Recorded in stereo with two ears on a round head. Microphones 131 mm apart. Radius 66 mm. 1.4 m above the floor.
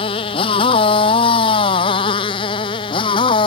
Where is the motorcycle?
35° left (ahead or behind).